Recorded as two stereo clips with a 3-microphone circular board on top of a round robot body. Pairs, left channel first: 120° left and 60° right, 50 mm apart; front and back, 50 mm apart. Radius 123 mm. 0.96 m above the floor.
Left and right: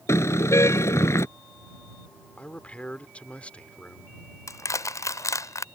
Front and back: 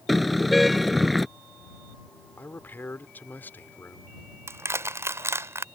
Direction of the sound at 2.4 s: 55° left.